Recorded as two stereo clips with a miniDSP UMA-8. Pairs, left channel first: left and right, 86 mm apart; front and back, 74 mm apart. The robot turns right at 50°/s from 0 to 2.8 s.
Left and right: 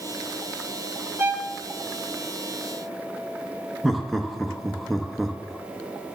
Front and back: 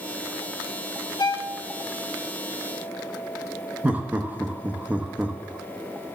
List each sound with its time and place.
1.2 s a violin: 30° right, 0.9 m; by 1.6 s 10° right, 0.9 m
3.8 s laughter: straight behind, 0.7 m